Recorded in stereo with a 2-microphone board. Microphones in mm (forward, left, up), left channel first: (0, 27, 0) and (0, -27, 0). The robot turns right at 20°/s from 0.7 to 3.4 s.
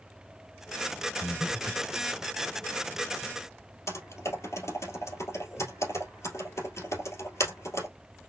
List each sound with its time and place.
1.2 s breathing: 35° left (ahead or behind), 1.9 m; by 1.9 s 30° left (ahead or behind), 1.9 m
3.9 s typing on a keyboard: 70° left (ahead or behind), 2 m